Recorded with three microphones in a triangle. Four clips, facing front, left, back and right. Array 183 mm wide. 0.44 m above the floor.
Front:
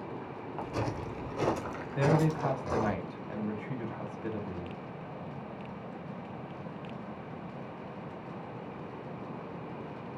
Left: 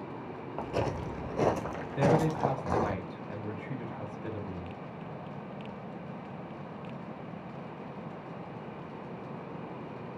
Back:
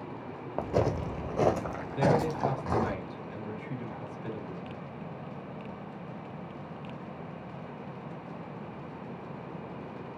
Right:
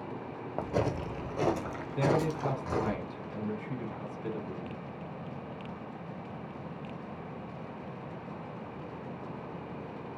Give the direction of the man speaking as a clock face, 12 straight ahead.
11 o'clock.